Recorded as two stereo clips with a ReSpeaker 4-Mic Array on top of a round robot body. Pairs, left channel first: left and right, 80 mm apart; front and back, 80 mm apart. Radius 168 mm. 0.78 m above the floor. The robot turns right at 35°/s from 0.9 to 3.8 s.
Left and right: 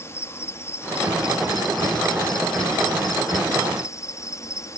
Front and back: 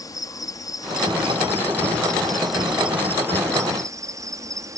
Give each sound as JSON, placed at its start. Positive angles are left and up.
{"t": 0.0, "sound": "an insect", "azimuth_deg": 35}